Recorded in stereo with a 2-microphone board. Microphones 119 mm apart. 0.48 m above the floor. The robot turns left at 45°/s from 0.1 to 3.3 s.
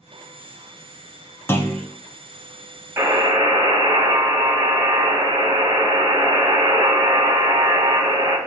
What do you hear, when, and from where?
1.5 s a clunk: 20° left (ahead or behind), 0.8 m; by 1.9 s 5° left (ahead or behind), 0.8 m
3.0 s a buzzer: 25° right (ahead or behind), 1.7 m; by 8.4 s 40° right (ahead or behind), 1.7 m